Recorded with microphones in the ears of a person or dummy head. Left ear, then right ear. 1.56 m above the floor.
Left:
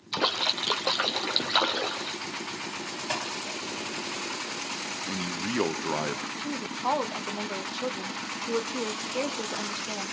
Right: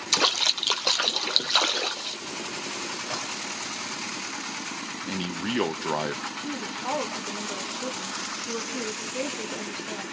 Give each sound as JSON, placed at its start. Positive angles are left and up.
{"t": 0.1, "sound": "a splash", "side_deg": -85, "distance_m": 1.0}
{"t": 3.1, "sound": "dishes clattering", "side_deg": 85, "distance_m": 8.5}
{"t": 5.1, "sound": "a man speaking", "side_deg": -15, "distance_m": 0.8}
{"t": 6.4, "sound": "a woman speaking", "side_deg": 20, "distance_m": 1.2}